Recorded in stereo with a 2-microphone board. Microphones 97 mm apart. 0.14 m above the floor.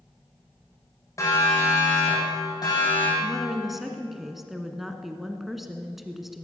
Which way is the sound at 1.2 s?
35° left (ahead or behind).